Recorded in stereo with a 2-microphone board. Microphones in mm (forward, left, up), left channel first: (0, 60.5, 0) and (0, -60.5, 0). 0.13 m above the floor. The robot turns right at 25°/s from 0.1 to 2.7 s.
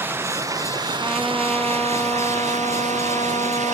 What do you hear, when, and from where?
0.0 s running water: 160° right; by 3.8 s 95° right
1.0 s a trumpet: 5° right; by 3.8 s 35° left